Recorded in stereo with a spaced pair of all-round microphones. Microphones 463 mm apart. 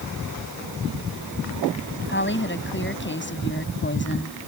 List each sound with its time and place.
2.1 s a woman speaking: 25° left (ahead or behind)